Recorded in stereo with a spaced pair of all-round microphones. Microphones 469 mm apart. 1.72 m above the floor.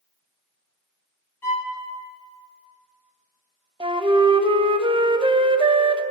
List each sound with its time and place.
1.4 s a violin: 55° left (ahead or behind), 2.5 m
3.8 s a flute: 10° right (ahead or behind), 0.6 m